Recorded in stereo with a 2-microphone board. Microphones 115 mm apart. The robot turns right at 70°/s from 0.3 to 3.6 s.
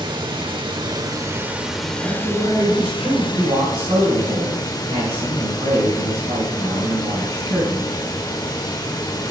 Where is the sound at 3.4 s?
60° right (ahead or behind), 4.5 m; by 7.9 s 80° right, 4.5 m.